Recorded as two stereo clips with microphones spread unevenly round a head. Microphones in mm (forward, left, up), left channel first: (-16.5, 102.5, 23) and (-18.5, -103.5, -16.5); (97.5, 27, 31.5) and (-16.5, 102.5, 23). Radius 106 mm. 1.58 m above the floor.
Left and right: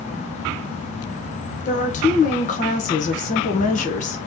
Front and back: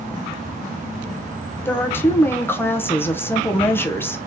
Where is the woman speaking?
40° left, 1.0 m.